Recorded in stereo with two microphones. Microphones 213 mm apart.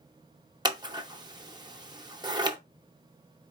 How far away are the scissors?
About 0.6 m.